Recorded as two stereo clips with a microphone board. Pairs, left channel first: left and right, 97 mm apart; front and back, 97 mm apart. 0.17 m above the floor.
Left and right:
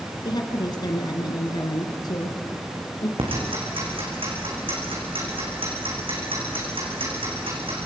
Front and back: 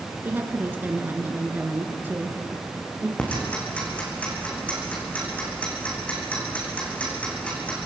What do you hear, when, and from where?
0.2 s a woman speaking: 115° left, 2 m
3.2 s ticking: 75° right, 4.5 m